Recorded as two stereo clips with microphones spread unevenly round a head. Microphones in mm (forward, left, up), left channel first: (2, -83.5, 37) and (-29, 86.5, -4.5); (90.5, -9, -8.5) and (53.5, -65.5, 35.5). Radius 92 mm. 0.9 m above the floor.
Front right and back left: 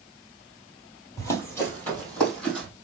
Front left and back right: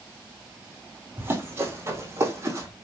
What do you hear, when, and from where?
1.2 s running footsteps: 140° right, 1.5 m; by 2.7 s 160° right, 2 m